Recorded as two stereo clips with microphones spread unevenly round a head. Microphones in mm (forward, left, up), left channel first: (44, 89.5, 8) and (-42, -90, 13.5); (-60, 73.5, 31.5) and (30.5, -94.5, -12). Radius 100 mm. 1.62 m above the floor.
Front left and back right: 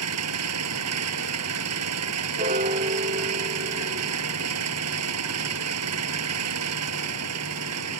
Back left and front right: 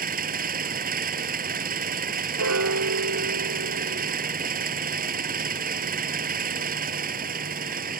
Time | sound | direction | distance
0.0 | an engine running | 110° right | ?
2.4 | a piano | 60° right | ?